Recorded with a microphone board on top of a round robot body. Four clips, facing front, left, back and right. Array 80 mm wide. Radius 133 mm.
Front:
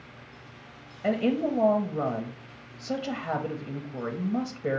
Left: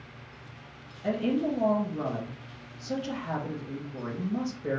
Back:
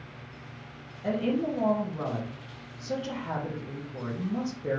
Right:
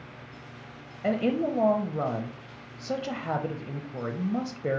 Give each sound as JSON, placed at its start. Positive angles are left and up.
{"t": 1.0, "sound": "a woman speaking", "azimuth_deg": -60, "distance_m": 0.9}